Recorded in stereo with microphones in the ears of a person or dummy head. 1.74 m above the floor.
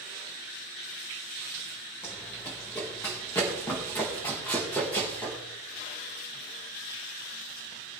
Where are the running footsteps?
15° left (ahead or behind), 4.5 m.